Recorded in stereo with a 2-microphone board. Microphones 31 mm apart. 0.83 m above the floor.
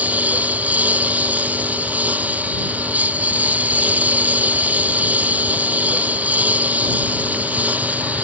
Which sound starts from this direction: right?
A lawn mower, at 0.0 s.